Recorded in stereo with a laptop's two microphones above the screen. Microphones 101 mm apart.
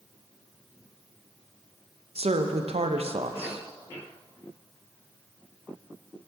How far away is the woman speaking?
About 0.5 m.